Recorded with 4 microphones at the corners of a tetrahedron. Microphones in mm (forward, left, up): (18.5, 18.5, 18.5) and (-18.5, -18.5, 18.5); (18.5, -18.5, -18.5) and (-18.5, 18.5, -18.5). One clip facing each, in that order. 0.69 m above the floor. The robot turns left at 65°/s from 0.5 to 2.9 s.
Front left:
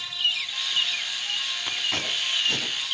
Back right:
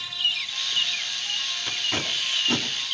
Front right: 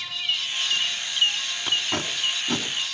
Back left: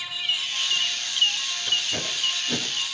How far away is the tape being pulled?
About 4.5 m.